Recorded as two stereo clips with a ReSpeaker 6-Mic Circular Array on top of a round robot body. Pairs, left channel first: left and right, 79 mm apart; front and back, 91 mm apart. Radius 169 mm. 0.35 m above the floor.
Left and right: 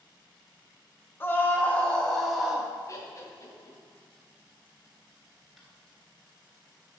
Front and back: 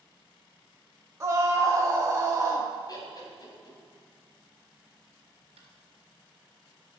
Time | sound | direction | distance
1.2 | a scream | 140° left | 1.8 m
2.9 | laughter | 45° left | 3 m
5.6 | tapping | straight behind | 2 m